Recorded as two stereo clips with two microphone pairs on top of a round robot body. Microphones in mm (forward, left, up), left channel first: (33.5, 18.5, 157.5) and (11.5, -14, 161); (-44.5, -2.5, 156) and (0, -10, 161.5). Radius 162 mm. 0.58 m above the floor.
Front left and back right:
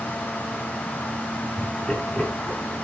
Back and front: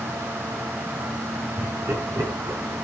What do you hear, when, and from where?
1.6 s laughter: 20° right, 8.5 m